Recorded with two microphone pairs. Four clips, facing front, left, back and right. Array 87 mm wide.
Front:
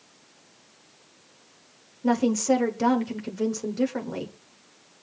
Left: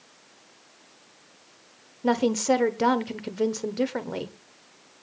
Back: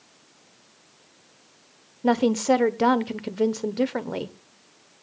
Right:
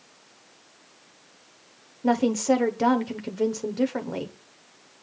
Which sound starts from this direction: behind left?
A woman speaking, at 2.0 s.